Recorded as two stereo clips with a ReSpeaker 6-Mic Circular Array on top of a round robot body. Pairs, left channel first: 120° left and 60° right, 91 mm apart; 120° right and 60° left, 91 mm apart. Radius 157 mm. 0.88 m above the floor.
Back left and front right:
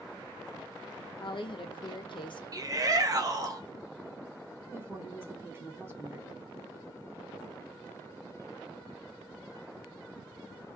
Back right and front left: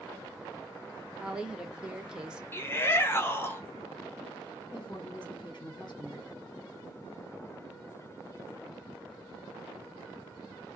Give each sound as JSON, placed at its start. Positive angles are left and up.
{"t": 1.2, "sound": "a woman speaking", "azimuth_deg": 140, "distance_m": 0.7}
{"t": 2.5, "sound": "a shout", "azimuth_deg": -70, "distance_m": 1.0}
{"t": 4.7, "sound": "a woman speaking", "azimuth_deg": -120, "distance_m": 1.5}